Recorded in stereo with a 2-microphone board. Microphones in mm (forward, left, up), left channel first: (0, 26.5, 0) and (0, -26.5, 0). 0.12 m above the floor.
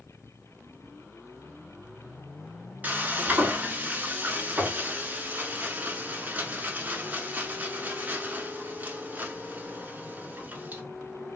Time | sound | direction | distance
2.8 | frying | 30° right (ahead or behind) | 0.7 m